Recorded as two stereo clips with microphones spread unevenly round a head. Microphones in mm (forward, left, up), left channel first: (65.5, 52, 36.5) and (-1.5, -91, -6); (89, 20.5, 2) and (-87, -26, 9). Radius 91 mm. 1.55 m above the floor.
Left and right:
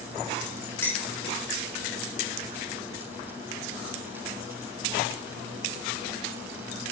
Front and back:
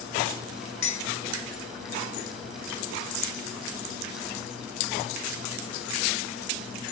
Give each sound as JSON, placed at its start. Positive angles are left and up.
{"t": 0.8, "sound": "dishes clattering", "azimuth_deg": -5, "distance_m": 4.5}